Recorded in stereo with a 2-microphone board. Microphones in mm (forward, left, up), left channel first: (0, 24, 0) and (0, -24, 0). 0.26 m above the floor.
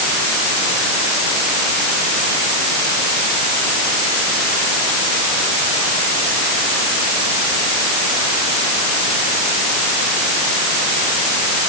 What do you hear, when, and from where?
Only background noise.